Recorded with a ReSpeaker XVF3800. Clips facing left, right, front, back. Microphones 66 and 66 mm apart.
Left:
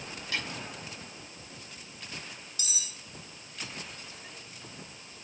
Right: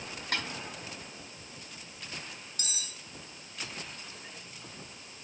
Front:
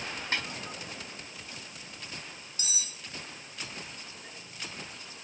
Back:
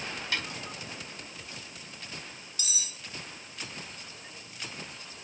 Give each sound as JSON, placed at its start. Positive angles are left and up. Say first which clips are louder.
{"t": 0.3, "sound": "a snare drum", "louder": "right 1 dB, front 1 dB", "azimuth_deg": -55, "distance_m": 4.5}
{"t": 2.6, "sound": "cutlery clinking", "louder": "right 1 dB, back 1 dB", "azimuth_deg": -50, "distance_m": 1.0}